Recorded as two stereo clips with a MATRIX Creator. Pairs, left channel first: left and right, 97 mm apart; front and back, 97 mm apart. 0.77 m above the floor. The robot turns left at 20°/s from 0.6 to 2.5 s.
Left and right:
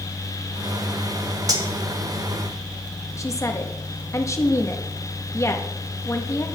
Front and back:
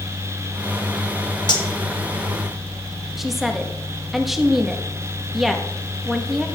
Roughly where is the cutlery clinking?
Ahead right.